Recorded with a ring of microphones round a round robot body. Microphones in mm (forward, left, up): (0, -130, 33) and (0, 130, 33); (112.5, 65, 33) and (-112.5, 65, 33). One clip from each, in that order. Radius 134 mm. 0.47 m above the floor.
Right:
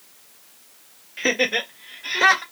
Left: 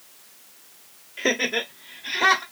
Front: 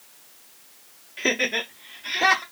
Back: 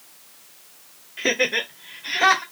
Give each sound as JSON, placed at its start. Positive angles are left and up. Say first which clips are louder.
{"t": 1.2, "sound": "laughter", "louder": "right 2 dB, back 2 dB", "azimuth_deg": -60, "distance_m": 1.2}